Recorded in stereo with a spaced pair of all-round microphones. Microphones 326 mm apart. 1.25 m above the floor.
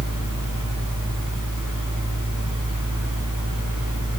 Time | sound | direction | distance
0.0 | a fan | 70° left (ahead or behind) | 3 m